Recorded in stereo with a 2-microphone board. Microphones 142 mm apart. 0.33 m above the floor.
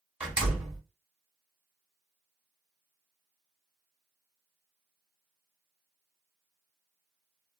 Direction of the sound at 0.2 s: 10° right (ahead or behind).